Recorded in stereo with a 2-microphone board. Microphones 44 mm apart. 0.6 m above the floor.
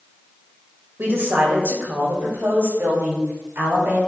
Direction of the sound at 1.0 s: 60° right (ahead or behind).